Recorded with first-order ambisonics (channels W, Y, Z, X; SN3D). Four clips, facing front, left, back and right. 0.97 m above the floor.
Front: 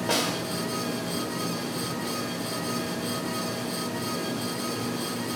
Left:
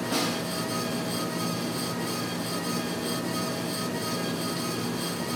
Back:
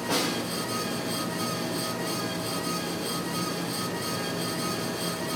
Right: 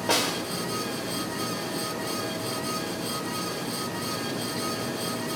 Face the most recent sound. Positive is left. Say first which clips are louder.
# right 4 dB, front 1 dB
turn(degrees=-65)